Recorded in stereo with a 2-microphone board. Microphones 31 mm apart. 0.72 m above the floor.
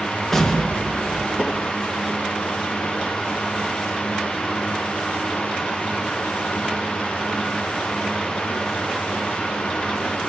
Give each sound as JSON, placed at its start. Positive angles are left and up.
{"t": 0.3, "sound": "an explosion", "side_deg": 10, "distance_m": 3.0}